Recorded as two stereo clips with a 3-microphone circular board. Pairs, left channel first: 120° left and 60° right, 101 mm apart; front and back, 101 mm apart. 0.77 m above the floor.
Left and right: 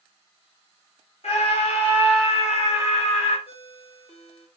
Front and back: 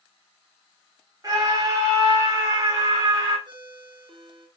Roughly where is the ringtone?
Behind left.